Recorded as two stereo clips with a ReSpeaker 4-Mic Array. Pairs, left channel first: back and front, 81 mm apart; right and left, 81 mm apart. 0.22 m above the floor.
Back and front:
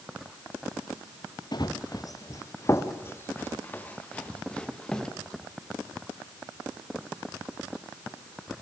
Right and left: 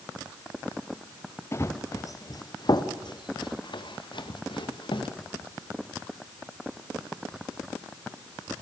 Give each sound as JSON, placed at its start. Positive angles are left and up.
{"t": 1.5, "sound": "running footsteps", "azimuth_deg": -145, "distance_m": 1.7}